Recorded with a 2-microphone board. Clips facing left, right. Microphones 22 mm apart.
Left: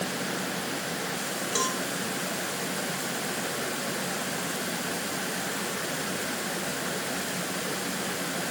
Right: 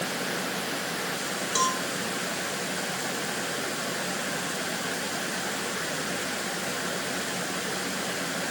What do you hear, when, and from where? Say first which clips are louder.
1.6 s a cowbell: right 3 dB; 15° right (ahead or behind), 0.9 m